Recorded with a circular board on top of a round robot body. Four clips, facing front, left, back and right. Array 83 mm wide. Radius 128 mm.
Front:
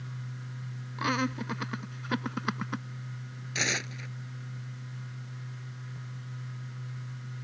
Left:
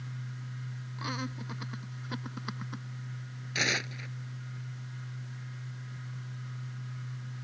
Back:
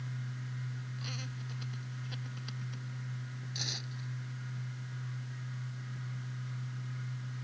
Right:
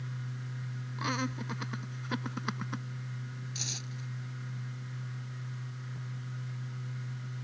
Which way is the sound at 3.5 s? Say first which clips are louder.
Left 10 dB, front 14 dB; 50° left.